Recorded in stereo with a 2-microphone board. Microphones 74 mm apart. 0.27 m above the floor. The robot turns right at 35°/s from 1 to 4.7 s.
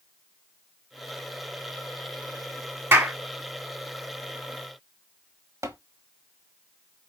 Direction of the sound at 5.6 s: 45° right (ahead or behind).